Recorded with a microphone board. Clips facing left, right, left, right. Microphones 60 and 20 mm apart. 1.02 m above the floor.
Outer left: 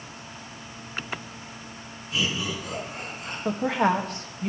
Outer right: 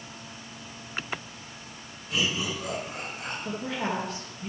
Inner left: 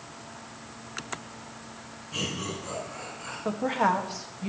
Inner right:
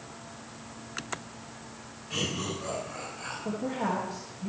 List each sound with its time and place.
2.1 s laughter: 80° right, 5.5 m; by 3.4 s 75° right (ahead or behind), 4.5 m
3.5 s a woman speaking: 60° left (ahead or behind), 1.4 m